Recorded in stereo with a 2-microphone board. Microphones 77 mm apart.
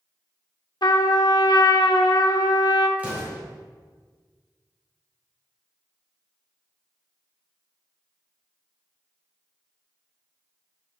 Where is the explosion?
20° right (ahead or behind), 2.5 m.